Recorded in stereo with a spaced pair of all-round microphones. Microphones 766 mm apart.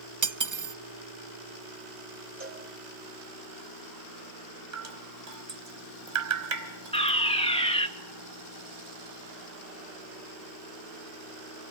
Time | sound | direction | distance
0.2 | cutlery clinking | 25° right (ahead or behind) | 0.5 m
2.4 | a cowbell | 80° right | 5 m
4.7 | dripping | 70° right (ahead or behind) | 1.9 m
6.9 | a fire alarm | 5° left (ahead or behind) | 2 m